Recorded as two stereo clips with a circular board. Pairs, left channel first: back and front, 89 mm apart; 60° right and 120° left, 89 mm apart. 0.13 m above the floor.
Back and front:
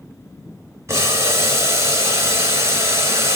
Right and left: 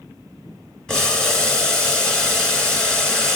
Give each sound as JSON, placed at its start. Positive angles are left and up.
{"t": 0.9, "sound": "boiling", "azimuth_deg": 20, "distance_m": 1.4}